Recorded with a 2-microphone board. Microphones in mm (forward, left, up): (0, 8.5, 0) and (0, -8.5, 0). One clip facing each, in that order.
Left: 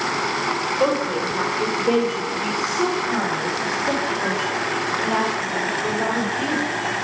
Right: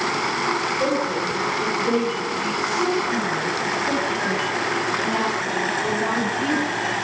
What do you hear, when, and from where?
0.8 s a woman speaking: 55° left (ahead or behind), 1.9 m; by 7.0 s 45° left (ahead or behind), 3.5 m